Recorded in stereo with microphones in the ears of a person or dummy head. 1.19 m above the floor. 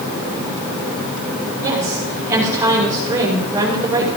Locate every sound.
1.6 s a woman speaking: 20° right (ahead or behind), 5 m